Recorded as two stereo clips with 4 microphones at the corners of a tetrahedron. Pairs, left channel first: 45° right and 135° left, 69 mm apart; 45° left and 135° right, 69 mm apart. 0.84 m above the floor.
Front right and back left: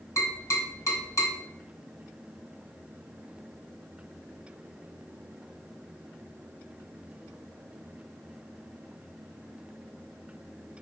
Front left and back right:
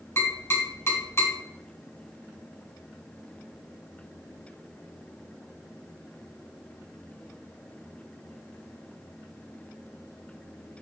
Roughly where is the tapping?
Ahead.